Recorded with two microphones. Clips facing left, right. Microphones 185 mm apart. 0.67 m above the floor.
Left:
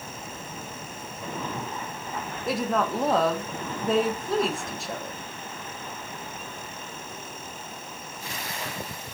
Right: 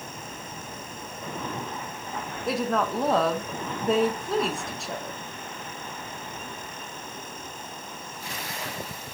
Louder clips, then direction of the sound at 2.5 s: Even; centre (ahead or behind).